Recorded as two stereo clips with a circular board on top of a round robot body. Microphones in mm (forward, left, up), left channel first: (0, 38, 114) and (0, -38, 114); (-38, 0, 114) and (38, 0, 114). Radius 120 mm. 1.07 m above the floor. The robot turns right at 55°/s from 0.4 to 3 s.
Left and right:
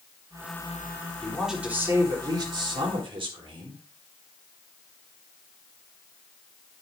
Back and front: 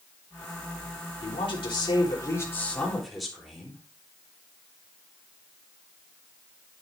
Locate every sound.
1.2 s a woman speaking: 170° left, 3.5 m; by 3.8 s 90° right, 3.5 m